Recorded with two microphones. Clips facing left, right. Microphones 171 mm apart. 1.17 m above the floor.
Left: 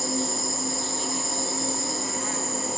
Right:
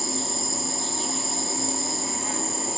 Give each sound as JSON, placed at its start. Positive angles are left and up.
{"t": 0.0, "sound": "an insect", "side_deg": -25, "distance_m": 3.5}